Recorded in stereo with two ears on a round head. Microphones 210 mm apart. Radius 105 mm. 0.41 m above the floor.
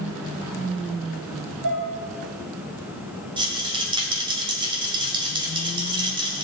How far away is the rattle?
About 2 m.